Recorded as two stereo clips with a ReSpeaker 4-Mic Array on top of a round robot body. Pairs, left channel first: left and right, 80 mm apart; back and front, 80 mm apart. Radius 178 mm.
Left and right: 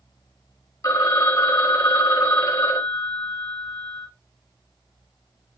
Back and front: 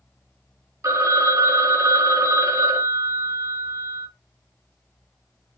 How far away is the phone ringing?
About 1.1 m.